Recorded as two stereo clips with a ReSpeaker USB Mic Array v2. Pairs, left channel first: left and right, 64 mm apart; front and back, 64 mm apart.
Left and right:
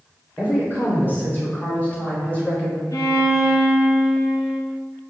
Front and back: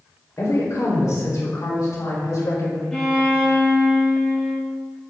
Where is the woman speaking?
35° left, 4 m; by 2.8 s 15° left, 1.9 m.